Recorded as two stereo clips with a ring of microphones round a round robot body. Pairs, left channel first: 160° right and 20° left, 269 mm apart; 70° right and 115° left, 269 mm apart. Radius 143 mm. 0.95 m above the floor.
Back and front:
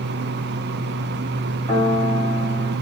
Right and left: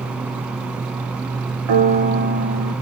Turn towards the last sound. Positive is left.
turn(degrees=90)